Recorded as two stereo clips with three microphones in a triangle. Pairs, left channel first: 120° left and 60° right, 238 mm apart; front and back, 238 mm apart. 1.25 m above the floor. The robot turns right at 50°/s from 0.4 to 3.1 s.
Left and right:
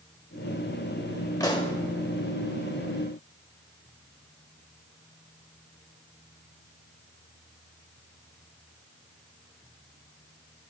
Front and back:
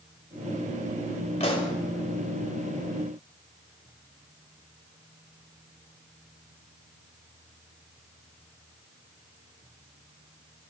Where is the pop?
50° left, 1.3 m; by 1.8 s 65° left, 1.3 m.